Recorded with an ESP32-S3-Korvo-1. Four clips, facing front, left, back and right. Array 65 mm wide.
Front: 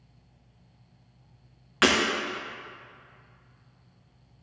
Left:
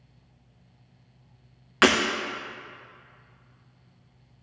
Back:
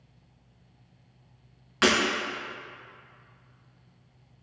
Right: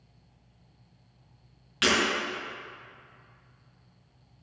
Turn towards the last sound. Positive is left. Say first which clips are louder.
# left 6 dB, front 1 dB
turn(degrees=75)